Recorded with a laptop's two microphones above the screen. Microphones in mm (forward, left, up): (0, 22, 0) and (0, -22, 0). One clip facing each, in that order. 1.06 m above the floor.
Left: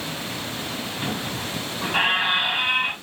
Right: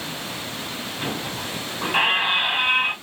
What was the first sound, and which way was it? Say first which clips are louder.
A squeak: right 1 dB; 15° right (ahead or behind).